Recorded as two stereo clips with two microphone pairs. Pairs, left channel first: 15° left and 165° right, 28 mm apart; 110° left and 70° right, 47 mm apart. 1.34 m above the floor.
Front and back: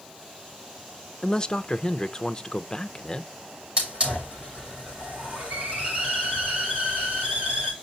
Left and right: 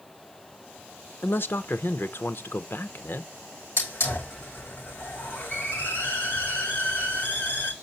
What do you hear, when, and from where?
1.2 s a man speaking: 75° left, 0.5 m
3.8 s a hiss: 140° left, 5.5 m